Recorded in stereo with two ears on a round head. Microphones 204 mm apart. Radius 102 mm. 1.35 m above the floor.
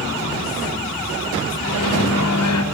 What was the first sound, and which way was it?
A microwave, 80° left.